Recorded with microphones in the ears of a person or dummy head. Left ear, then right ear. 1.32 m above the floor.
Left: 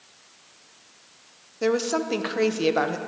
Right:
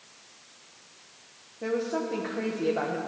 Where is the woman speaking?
75° left (ahead or behind), 0.6 m.